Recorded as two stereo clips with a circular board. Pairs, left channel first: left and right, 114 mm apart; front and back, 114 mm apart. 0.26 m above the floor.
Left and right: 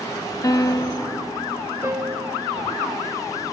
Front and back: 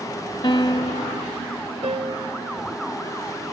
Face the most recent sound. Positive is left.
turn(degrees=-150)